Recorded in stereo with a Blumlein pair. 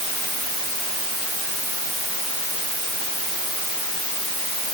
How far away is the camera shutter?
No camera shutter in this recording.